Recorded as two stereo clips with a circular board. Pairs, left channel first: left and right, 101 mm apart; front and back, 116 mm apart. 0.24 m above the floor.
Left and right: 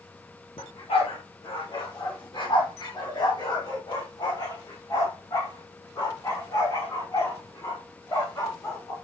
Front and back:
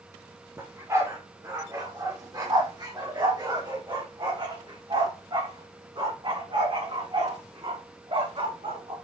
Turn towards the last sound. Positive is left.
turn(degrees=145)